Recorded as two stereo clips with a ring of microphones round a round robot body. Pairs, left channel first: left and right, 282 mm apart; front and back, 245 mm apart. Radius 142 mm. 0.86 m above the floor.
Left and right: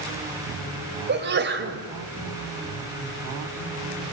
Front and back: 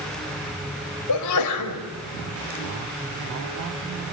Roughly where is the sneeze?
Ahead right.